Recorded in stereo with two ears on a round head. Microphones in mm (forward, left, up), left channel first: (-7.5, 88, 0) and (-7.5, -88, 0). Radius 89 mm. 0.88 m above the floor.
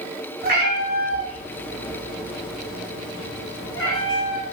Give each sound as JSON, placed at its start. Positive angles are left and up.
{"t": 0.4, "sound": "a cat meowing", "side_deg": -50, "distance_m": 1.2}